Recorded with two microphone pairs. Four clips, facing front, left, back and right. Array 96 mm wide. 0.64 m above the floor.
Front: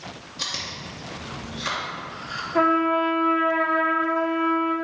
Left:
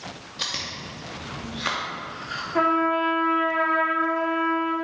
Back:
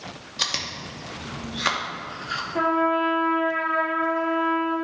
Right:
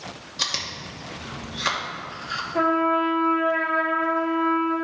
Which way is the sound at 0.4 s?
165° right.